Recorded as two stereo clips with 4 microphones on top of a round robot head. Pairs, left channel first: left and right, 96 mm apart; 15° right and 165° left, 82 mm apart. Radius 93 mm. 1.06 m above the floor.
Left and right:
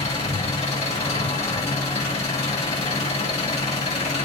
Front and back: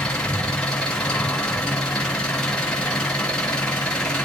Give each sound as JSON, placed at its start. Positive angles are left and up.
{"t": 0.0, "sound": "an engine running", "azimuth_deg": 65, "distance_m": 3.0}